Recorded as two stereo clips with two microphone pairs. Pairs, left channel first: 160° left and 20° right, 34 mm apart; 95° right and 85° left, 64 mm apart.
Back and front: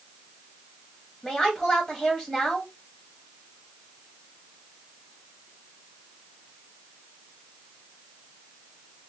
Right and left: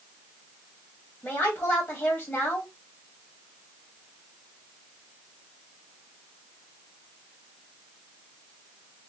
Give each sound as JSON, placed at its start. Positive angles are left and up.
{"t": 1.2, "sound": "a woman speaking", "azimuth_deg": -135, "distance_m": 1.6}